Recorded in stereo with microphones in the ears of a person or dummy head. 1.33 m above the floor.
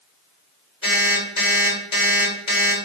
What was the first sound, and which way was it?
An alarm clock, 35° left (ahead or behind).